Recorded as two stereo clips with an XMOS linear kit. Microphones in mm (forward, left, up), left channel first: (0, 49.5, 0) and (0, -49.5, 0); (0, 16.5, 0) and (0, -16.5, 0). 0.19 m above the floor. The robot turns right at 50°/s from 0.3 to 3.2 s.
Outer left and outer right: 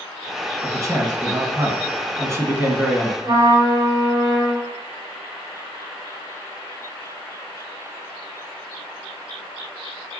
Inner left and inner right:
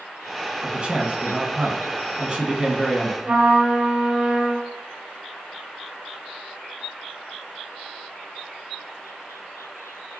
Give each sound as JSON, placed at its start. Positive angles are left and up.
{"t": 0.6, "sound": "a man speaking", "azimuth_deg": -135, "distance_m": 1.5}
{"t": 3.2, "sound": "a trumpet", "side_deg": -35, "distance_m": 2.5}